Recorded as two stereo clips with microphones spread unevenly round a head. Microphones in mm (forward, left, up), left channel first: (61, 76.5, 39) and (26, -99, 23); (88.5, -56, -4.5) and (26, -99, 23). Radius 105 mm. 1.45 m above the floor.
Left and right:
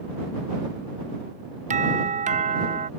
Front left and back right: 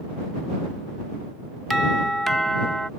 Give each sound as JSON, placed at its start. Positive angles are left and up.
{"t": 1.7, "sound": "a doorbell", "azimuth_deg": -55}